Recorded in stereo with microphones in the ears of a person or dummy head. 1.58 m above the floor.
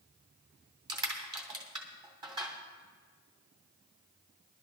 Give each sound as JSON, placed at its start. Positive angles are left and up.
{"t": 0.9, "sound": "crushing", "side_deg": -25, "distance_m": 2.5}